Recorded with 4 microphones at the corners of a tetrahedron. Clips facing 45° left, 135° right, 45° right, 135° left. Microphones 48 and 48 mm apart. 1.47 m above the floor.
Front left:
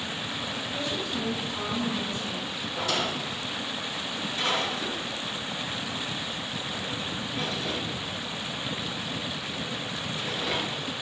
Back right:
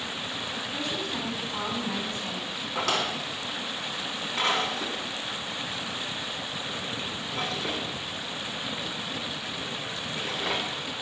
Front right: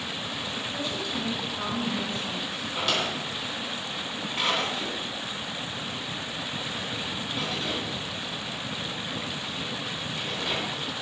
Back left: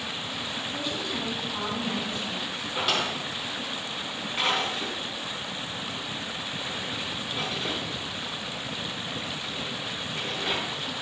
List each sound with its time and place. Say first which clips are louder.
0.7 s a woman speaking: front left 1 dB, even; 150° right, 6 m; by 2.6 s 140° right, 7 m
2.8 s a drawer: back right 1 dB, back left 1 dB; 145° right, 4 m